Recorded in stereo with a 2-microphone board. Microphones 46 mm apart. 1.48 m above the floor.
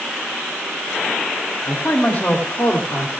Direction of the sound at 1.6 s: 50° left (ahead or behind).